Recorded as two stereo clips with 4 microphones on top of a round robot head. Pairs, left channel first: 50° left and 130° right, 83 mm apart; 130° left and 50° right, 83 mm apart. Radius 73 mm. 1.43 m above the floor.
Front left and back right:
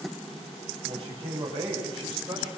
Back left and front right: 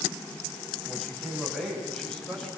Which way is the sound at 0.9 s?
140° right.